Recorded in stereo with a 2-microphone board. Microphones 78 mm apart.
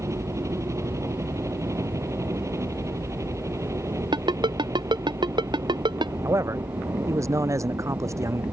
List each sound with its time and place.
0.0 s a helicopter: 40° right (ahead or behind)
4.1 s a ringtone: 75° right (ahead or behind)
6.2 s a man speaking: 40° right (ahead or behind)